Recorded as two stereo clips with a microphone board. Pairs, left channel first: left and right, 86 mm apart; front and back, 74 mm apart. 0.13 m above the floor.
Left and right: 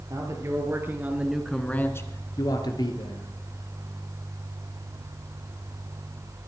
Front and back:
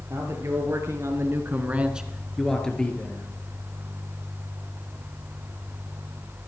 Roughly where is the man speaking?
Behind right.